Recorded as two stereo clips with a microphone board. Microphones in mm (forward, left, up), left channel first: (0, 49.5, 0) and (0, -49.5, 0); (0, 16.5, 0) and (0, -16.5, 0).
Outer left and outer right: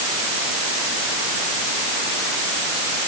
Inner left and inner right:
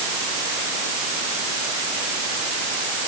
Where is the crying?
I don't hear crying.